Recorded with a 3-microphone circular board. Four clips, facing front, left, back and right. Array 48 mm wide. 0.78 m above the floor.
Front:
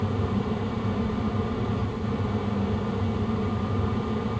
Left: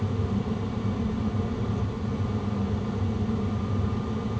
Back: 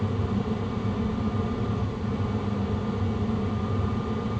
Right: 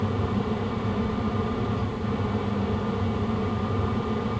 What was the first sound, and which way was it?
Only background noise.